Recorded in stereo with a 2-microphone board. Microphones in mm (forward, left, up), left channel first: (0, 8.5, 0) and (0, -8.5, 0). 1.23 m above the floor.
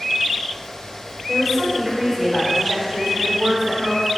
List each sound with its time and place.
1.3 s a woman speaking: 15° right (ahead or behind), 5 m; by 4.1 s 35° right (ahead or behind), 4.5 m